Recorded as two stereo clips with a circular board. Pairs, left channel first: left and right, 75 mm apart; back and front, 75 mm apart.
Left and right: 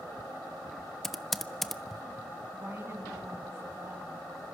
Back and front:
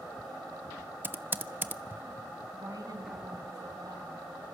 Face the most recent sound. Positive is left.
turn(degrees=-35)